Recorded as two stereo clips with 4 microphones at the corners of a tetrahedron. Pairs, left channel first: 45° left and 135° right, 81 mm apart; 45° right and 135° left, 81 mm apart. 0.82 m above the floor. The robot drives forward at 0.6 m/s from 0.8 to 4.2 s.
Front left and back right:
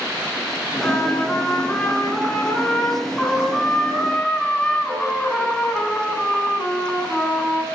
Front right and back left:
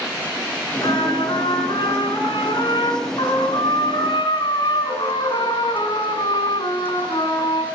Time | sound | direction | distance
0.8 | a trumpet | 25° right | 9.5 m